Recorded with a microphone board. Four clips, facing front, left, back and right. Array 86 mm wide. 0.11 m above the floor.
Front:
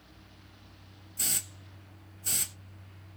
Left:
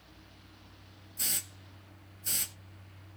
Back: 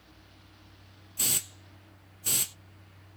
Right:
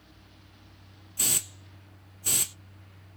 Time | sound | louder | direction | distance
1.2 | a hiss | right 6 dB, back 3 dB | 125° right | 0.5 m